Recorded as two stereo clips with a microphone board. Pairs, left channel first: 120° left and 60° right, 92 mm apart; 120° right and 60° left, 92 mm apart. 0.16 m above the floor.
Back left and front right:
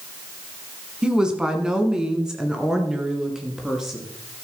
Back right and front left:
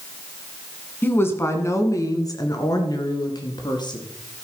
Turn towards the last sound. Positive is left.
turn(degrees=-145)